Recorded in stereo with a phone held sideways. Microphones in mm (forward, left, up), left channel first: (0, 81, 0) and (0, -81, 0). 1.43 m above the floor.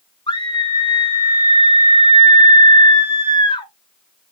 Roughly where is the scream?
Left.